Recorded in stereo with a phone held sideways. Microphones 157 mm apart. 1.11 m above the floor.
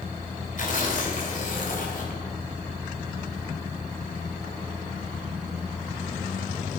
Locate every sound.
0.6 s tearing paper: 60° left (ahead or behind), 3 m